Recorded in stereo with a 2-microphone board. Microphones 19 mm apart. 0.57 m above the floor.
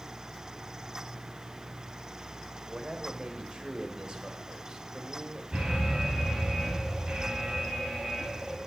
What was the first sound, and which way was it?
A man speaking, 45° right (ahead or behind).